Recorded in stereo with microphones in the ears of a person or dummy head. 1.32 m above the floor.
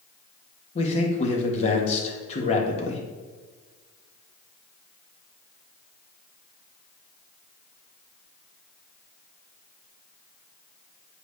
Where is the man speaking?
45° left (ahead or behind), 1.5 m.